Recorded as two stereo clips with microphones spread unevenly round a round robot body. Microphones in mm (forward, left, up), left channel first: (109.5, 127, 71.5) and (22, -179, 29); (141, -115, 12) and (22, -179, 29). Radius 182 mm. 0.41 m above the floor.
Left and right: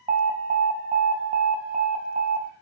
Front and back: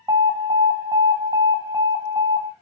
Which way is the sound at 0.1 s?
110° right.